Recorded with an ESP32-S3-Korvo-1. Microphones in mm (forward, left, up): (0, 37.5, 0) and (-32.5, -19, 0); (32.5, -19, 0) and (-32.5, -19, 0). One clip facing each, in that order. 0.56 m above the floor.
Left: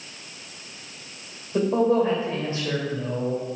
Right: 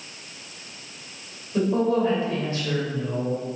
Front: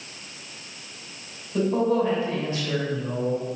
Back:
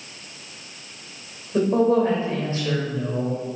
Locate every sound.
1.5 s a man speaking: 125° left, 2.5 m